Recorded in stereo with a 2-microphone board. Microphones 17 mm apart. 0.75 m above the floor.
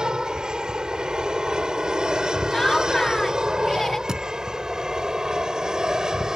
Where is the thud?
55° right (ahead or behind).